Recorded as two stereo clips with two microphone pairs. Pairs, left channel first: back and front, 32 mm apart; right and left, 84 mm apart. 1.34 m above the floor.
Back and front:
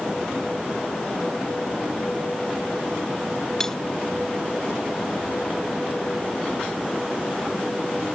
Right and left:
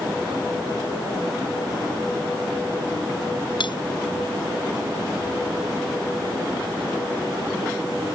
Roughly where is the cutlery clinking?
Right.